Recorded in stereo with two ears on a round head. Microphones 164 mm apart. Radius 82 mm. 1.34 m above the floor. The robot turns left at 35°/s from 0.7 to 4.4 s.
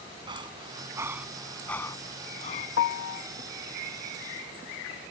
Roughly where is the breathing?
Right.